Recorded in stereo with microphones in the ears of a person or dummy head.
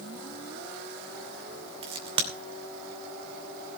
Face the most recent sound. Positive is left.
turn(degrees=-25)  # may be behind; listen again after turning